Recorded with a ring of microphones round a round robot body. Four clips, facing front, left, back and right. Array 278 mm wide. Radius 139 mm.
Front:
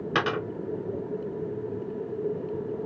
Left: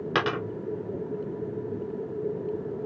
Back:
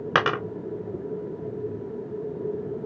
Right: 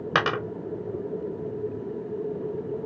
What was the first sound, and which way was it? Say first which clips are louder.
A dropped coin: right 2 dB, back 4 dB; 160° right.